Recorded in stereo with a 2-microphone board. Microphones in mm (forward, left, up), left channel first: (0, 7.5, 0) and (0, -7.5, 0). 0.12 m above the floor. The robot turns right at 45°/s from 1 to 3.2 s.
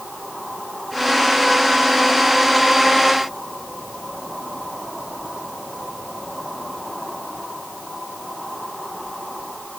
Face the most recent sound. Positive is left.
No sound to turn to.